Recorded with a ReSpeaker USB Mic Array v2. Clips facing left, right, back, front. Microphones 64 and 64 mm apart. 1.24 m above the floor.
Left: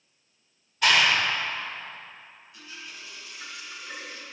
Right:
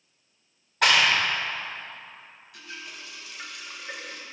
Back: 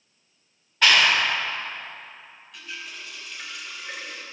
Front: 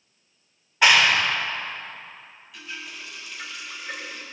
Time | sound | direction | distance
0.8 | a clap | 75° right | 3.5 m
2.5 | a running tap | 90° right | 3 m